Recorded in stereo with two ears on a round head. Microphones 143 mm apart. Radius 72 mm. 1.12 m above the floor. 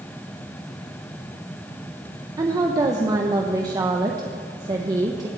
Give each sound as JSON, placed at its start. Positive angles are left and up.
{"t": 2.4, "sound": "a woman speaking", "side_deg": -25, "distance_m": 1.2}